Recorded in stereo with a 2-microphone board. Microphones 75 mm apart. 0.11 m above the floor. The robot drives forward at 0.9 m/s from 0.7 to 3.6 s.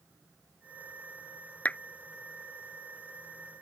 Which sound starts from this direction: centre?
A clap, at 1.6 s.